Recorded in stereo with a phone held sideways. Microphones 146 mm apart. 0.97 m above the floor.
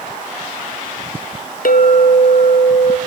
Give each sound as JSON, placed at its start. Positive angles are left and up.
{"t": 1.6, "sound": "a clink", "side_deg": 70, "distance_m": 0.7}